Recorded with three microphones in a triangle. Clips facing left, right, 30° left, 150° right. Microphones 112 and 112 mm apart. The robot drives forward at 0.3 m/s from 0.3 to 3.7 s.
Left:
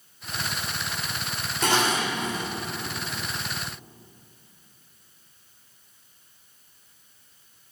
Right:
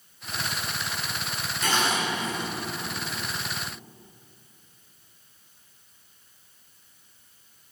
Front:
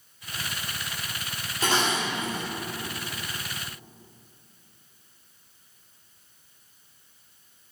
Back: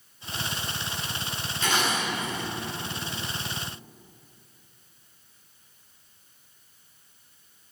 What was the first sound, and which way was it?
Dishes clattering, 80° left.